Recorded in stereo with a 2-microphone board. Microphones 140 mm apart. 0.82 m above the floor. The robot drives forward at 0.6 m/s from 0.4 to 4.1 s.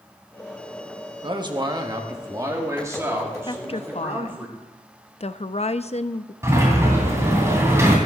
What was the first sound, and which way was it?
A man speaking, 35° right (ahead or behind).